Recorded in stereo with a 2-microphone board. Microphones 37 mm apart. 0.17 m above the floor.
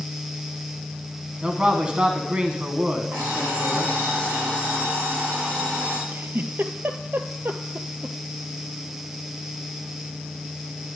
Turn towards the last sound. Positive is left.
turn(degrees=-70)  # may be behind; listen again after turning